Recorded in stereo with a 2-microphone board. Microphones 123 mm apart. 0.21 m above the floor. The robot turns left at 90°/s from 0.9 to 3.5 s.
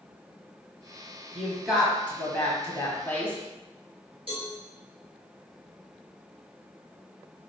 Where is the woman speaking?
15° right (ahead or behind), 1.0 m; by 3.4 s 15° left (ahead or behind), 1.0 m.